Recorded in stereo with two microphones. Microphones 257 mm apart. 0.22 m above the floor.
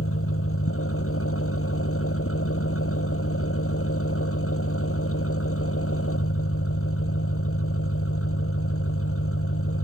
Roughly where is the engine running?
Left.